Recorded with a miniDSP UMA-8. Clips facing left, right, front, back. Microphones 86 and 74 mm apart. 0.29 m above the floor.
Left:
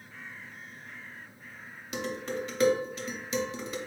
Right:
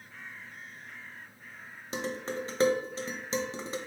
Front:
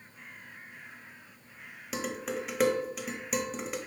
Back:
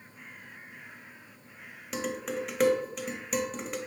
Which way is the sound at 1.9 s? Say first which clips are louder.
Left 1 dB, back 1 dB; 85° right.